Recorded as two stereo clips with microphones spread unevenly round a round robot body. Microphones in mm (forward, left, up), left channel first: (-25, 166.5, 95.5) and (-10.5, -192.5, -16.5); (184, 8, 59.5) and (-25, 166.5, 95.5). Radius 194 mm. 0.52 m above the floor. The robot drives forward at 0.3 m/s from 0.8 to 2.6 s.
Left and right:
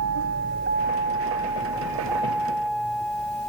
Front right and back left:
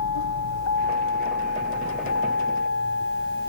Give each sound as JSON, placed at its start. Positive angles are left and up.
{"t": 0.0, "sound": "a vehicle", "azimuth_deg": -35}